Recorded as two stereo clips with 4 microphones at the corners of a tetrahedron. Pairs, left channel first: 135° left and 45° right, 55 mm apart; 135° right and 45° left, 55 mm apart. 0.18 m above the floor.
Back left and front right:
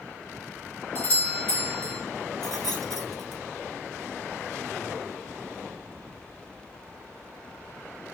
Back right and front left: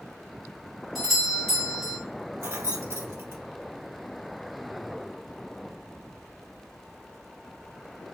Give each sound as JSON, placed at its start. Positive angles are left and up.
{"t": 0.9, "sound": "a doorbell", "azimuth_deg": 140, "distance_m": 2.0}
{"t": 2.4, "sound": "keys jangling", "azimuth_deg": 55, "distance_m": 1.2}